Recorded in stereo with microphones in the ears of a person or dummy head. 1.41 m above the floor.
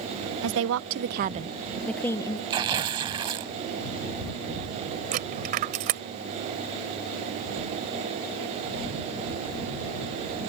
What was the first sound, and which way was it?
A woman speaking, 75° right (ahead or behind).